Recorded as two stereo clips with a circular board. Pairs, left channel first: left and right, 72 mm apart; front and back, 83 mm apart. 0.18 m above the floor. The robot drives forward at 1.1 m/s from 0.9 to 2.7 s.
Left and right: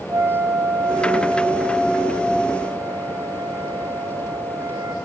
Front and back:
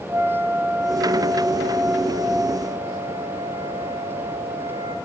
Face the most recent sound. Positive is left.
turn(degrees=-145)